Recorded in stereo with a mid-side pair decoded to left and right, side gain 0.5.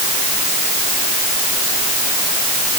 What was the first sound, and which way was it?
Only background noise.